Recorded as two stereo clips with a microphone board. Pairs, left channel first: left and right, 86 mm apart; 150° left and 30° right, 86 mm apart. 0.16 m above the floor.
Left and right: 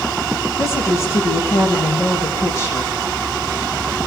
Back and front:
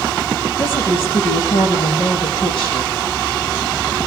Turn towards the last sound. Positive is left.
turn(degrees=145)